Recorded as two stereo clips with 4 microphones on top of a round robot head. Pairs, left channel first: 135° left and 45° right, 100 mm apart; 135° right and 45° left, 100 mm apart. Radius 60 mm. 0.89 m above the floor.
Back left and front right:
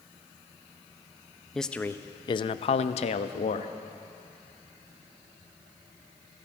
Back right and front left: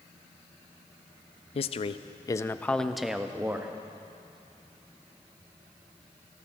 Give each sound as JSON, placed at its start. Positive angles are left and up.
{"t": 1.6, "sound": "a man speaking", "azimuth_deg": -140, "distance_m": 0.6}